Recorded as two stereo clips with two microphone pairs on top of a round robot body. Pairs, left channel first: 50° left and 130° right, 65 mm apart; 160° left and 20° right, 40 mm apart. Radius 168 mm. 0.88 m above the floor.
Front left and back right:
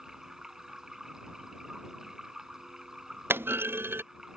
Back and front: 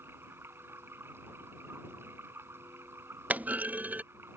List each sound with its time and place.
0.0 s running water: 45° right
3.3 s a clunk: 70° right